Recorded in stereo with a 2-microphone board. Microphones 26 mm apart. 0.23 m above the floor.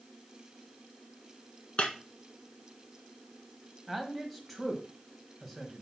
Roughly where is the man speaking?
Centre.